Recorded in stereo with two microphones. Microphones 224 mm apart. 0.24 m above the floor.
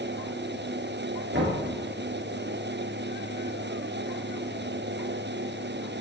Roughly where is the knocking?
Right.